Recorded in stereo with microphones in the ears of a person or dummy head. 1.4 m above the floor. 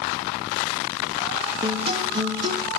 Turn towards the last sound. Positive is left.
turn(degrees=-25)  # may be behind; listen again after turning